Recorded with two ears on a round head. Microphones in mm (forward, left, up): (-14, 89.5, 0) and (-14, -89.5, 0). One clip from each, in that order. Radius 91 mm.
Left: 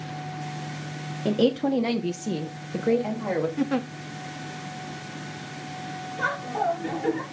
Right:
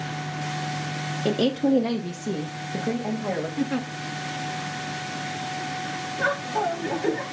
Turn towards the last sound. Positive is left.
turn(degrees=10)  # may be behind; listen again after turning